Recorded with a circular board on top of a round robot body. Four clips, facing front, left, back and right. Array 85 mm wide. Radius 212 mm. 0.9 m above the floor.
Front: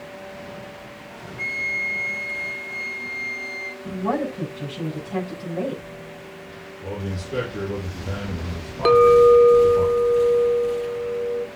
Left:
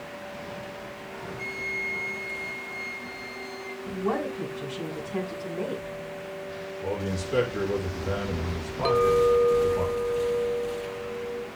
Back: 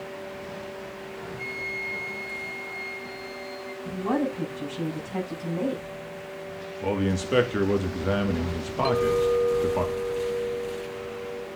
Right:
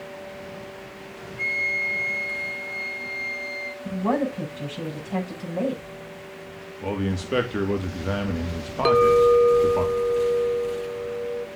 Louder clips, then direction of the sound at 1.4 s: Right 8 dB, front 10 dB; 45° right.